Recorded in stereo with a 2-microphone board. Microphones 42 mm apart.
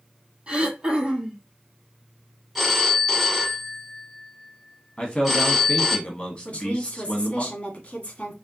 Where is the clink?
No clink in this recording.